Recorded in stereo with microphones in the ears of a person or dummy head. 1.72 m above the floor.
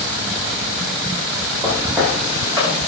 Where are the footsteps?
15° right (ahead or behind), 8.5 m.